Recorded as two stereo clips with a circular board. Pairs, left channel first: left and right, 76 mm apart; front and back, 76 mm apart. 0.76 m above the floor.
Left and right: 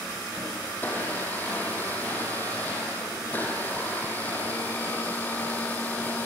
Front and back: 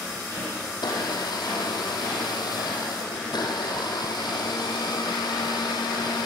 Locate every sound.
0.7 s a blender: 25° left, 6 m